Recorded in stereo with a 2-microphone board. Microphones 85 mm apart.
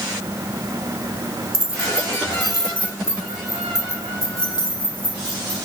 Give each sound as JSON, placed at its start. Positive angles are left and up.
{"t": 1.5, "sound": "keys jangling", "side_deg": -45, "distance_m": 2.0}